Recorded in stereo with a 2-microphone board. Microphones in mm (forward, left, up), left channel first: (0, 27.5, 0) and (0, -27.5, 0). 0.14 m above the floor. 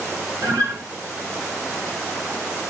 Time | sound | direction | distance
0.4 | a guitar | 55° right (ahead or behind) | 5 m